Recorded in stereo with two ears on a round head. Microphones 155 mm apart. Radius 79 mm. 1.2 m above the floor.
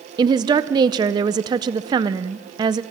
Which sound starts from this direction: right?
A woman speaking, at 0.2 s.